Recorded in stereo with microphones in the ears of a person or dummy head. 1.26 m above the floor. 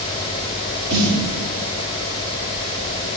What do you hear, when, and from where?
0.9 s a snare drum: 75° right (ahead or behind), 7.5 m